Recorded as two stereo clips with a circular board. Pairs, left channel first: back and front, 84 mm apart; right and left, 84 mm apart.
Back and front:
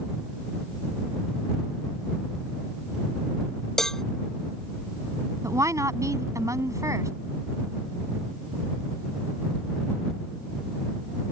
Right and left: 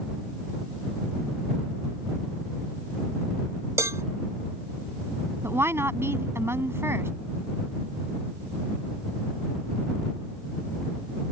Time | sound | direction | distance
3.8 | a cowbell | 100° left | ?
5.4 | a woman speaking | 40° left | ?